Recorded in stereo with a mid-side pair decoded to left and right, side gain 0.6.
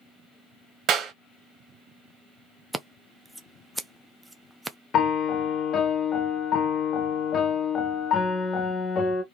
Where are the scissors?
10° right, 0.5 m.